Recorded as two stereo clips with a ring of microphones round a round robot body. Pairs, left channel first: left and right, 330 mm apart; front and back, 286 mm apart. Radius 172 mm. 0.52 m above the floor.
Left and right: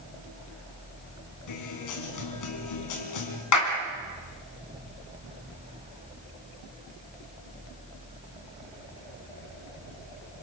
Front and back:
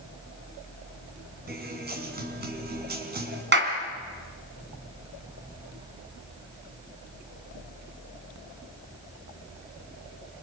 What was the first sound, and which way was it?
A guitar, 125° left.